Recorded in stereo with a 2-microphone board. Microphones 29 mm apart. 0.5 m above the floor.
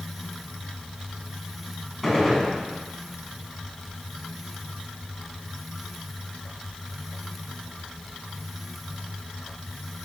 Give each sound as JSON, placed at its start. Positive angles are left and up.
{"t": 2.0, "sound": "a gunshot", "side_deg": 5, "distance_m": 1.8}